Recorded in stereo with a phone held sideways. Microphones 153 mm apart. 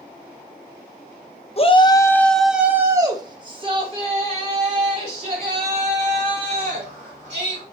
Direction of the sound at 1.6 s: 40° left (ahead or behind).